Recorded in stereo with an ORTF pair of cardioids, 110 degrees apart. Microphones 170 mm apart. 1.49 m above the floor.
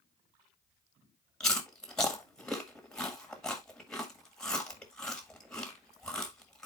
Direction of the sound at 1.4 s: 5° left.